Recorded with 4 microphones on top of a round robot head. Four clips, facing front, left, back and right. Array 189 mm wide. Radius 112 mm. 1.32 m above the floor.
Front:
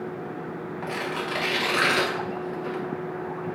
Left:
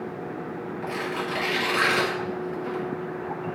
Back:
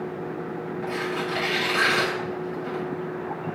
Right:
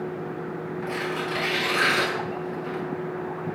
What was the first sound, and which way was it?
Tearing paper, 5° left.